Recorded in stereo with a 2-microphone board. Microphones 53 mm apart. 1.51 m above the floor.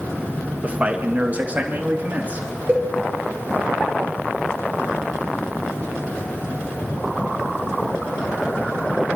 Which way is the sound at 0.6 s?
30° right (ahead or behind).